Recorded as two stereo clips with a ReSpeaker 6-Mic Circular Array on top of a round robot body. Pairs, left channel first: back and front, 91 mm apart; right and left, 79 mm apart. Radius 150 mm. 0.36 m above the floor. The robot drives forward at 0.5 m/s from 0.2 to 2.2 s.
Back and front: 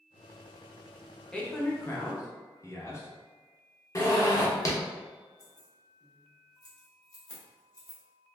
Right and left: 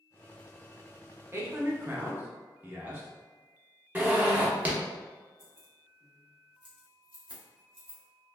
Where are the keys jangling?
150° left, 1.4 m.